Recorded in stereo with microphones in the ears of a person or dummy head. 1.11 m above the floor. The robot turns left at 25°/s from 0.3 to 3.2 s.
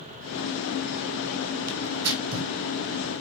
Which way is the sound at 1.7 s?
70° right (ahead or behind).